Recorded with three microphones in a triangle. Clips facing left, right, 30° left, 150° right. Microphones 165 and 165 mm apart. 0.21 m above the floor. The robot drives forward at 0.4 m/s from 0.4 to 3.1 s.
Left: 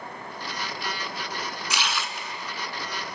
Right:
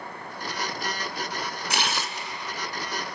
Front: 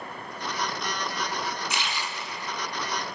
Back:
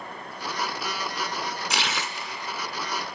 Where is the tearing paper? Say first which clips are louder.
Right 2 dB, back 2 dB; 130° right, 0.6 m; by 2.3 s 145° right, 0.7 m.